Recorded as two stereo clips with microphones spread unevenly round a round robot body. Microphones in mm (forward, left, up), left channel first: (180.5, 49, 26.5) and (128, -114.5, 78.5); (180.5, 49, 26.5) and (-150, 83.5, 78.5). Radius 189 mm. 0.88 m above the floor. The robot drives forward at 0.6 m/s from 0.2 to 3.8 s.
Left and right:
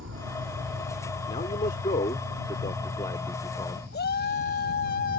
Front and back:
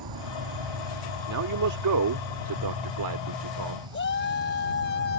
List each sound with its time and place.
0.0 s an insect: 150° right; by 5.2 s 170° right
1.3 s a man speaking: 135° left; by 3.8 s 150° left
3.9 s a shout: 50° left